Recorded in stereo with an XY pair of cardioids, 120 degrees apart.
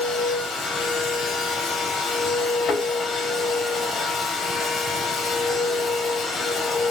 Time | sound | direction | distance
0.0 | a machine running | 50° left | 1.8 m
2.6 | a thud | 65° left | 2.5 m